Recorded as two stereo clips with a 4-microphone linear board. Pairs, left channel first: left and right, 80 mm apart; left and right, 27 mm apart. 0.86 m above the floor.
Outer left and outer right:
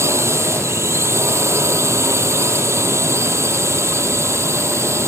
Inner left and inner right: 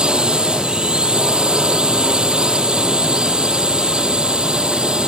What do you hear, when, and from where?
0.0 s a drone: 35° right (ahead or behind)